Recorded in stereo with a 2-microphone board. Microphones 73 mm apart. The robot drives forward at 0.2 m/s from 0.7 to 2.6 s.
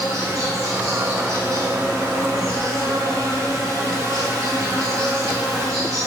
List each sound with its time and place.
0.0 s an insect: 50° right (ahead or behind), 3 m; by 6.1 s 45° right (ahead or behind), 3 m